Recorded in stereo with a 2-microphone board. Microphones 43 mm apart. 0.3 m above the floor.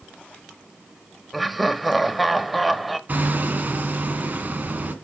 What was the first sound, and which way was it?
Laughter, centre (ahead or behind).